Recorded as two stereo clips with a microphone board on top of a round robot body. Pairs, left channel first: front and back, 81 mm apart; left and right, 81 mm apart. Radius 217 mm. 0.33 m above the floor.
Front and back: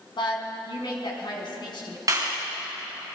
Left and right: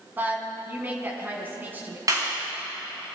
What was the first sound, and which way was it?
A woman speaking, 25° right.